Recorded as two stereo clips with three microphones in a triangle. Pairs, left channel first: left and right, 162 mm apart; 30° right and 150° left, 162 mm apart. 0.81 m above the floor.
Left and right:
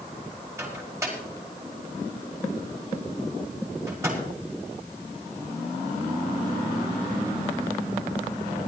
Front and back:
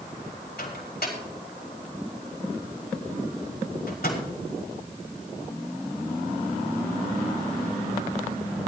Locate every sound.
0.6 s a microwave: 15° right, 4.5 m